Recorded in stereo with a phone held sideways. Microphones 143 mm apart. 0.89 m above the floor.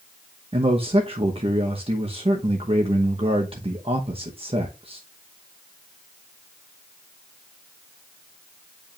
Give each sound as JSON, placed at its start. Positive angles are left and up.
{"t": 0.5, "sound": "a man speaking", "side_deg": -40, "distance_m": 0.9}